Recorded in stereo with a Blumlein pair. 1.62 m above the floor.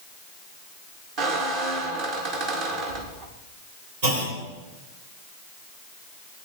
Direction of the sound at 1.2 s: 40° right.